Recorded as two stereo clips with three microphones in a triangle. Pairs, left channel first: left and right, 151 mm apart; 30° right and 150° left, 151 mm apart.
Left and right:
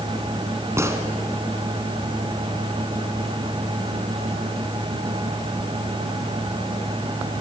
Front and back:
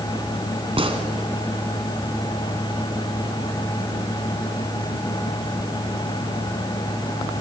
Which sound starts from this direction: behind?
A gunshot, at 0.8 s.